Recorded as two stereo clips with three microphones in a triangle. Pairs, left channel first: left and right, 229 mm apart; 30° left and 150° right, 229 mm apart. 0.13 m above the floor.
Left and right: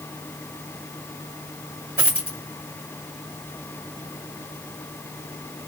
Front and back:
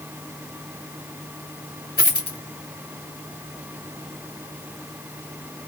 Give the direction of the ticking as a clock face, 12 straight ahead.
I don't hear ticking.